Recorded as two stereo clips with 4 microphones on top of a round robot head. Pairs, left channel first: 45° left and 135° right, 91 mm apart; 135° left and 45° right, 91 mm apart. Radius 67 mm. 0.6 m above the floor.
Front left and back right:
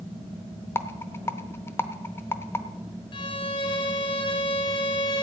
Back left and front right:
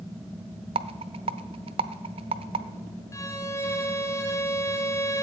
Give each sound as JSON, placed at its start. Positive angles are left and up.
{"t": 0.8, "sound": "a rattle", "azimuth_deg": -20, "distance_m": 0.7}
{"t": 3.1, "sound": "a violin", "azimuth_deg": 75, "distance_m": 1.7}